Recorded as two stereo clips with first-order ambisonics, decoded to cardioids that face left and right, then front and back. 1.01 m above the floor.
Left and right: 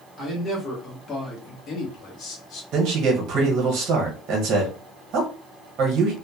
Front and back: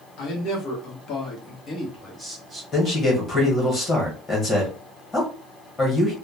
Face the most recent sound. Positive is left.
turn(degrees=-60)